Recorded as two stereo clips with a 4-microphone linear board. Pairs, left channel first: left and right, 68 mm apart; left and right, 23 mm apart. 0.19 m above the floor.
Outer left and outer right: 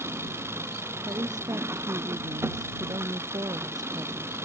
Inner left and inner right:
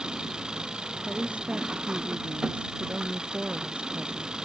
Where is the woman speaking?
80° right.